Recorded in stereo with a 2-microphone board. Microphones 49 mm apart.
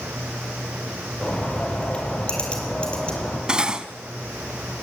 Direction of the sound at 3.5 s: 20° right (ahead or behind).